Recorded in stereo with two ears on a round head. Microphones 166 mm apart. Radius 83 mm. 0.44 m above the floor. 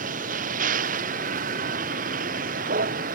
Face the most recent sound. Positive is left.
turn(degrees=-45)  # may be behind; listen again after turning